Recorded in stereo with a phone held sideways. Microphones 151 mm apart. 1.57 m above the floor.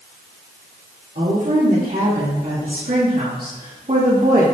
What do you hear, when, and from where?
1.1 s a woman speaking: 80° right, 4 m; by 4.4 s 55° right (ahead or behind), 2.5 m